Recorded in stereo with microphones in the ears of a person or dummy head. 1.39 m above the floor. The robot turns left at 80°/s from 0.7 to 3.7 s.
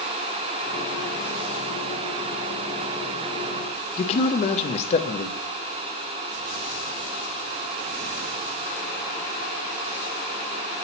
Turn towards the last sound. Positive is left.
turn(degrees=35)  # may be behind; listen again after turning